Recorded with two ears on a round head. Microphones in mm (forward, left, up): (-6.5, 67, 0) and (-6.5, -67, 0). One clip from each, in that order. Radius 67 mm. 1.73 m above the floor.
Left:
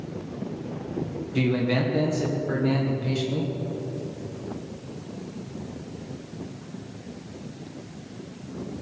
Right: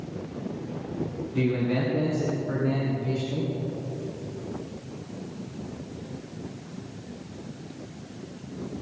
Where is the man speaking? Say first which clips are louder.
Left 2 dB; 70° left (ahead or behind), 2.0 m.